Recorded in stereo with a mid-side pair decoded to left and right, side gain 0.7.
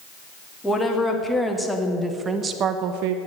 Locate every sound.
0.6 s a woman speaking: 10° left, 3 m; by 3.2 s 80° right, 1.0 m